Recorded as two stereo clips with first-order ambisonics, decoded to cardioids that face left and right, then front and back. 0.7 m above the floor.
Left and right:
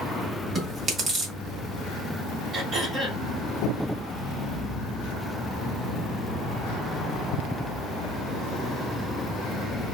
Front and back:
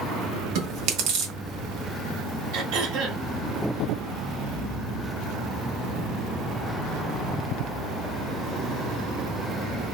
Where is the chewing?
160° right, 0.9 m.